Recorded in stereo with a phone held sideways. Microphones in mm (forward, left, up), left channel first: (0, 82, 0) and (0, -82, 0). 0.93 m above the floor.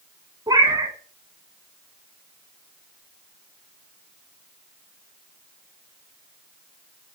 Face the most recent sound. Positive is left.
turn(degrees=-25)  # may be behind; listen again after turning